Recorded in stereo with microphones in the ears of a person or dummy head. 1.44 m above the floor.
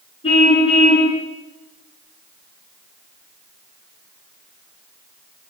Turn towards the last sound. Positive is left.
turn(degrees=30)  # may be behind; listen again after turning